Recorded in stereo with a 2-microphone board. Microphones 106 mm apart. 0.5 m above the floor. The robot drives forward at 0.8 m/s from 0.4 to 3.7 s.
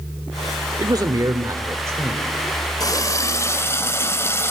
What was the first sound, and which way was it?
A man speaking, 40° right (ahead or behind).